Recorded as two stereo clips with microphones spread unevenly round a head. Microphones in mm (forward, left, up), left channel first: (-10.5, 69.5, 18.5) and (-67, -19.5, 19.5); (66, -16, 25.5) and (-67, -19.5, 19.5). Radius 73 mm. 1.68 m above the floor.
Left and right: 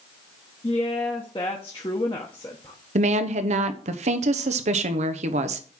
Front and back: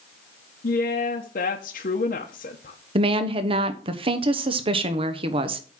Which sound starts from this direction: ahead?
A woman speaking, at 0.6 s.